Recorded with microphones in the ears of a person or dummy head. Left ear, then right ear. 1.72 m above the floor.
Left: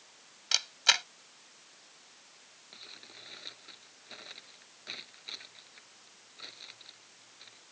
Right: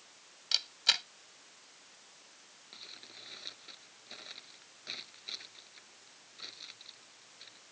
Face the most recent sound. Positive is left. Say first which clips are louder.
# even
turn(degrees=10)  # may be behind; listen again after turning